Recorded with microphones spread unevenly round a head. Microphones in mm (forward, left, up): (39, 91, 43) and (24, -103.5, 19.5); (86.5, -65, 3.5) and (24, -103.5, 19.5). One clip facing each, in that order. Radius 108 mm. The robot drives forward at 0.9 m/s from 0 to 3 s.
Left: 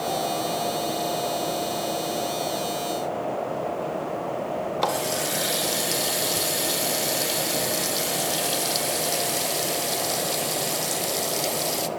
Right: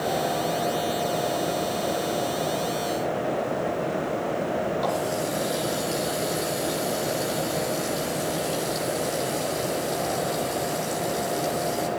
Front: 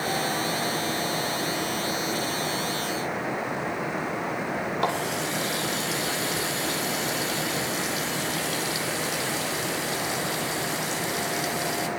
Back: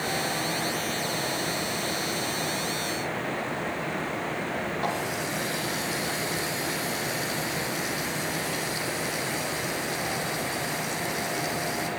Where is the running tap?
75° left, 1.9 m.